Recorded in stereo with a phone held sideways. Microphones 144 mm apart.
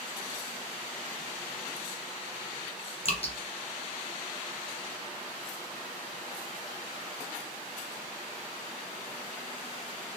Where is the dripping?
45° left (ahead or behind), 0.7 m.